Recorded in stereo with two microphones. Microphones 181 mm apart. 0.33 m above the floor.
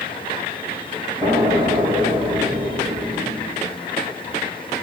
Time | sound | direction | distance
1.2 | an explosion | 20° right (ahead or behind) | 2 m